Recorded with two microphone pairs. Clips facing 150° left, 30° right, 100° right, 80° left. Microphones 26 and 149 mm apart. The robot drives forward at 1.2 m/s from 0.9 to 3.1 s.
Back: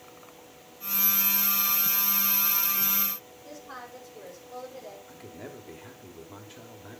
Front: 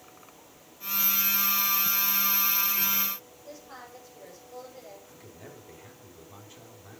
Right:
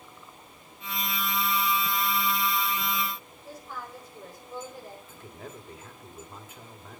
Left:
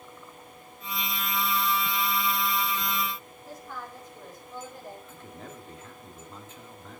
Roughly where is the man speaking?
Behind.